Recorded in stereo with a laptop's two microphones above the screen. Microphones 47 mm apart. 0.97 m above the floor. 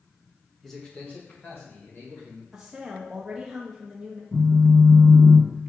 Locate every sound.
0.6 s a man speaking: centre (ahead or behind), 0.9 m; by 2.4 s 60° left (ahead or behind), 2.5 m
2.5 s a woman speaking: 10° right (ahead or behind), 0.7 m
4.3 s a phone buzzing: 10° left (ahead or behind), 0.8 m